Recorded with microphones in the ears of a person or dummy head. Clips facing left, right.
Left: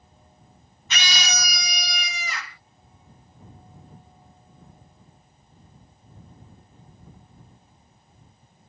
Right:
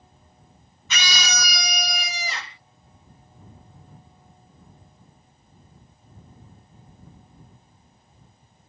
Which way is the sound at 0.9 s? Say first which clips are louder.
Right 1 dB; 75° right (ahead or behind).